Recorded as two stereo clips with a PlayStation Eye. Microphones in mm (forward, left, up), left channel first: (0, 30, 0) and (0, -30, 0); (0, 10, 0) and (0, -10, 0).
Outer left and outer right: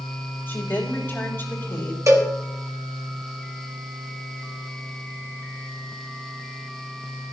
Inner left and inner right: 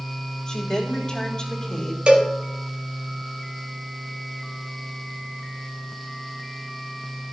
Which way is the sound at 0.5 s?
35° left (ahead or behind).